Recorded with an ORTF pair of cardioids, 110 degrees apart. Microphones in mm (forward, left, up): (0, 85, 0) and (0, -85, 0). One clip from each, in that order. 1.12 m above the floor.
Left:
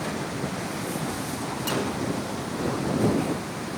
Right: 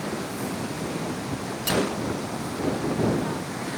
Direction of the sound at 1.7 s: 30° right.